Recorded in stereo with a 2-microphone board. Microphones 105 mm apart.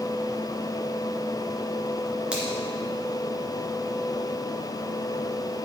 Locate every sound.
2.3 s a finger snap: 10° right (ahead or behind), 2.5 m